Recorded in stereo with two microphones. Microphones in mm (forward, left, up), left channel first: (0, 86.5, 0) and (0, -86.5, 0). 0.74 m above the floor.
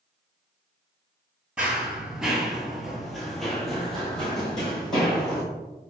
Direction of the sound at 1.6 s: 5° right (ahead or behind).